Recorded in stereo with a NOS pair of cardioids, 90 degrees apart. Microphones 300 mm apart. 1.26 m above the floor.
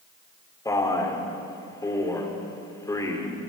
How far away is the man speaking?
About 3 m.